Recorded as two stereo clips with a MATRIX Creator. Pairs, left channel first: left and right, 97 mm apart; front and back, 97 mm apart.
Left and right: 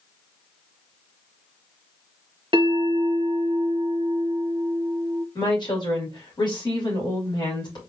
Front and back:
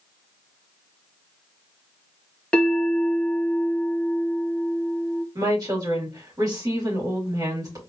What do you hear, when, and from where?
2.5 s a bell: 75° right, 0.8 m
5.3 s a woman speaking: 130° left, 2.5 m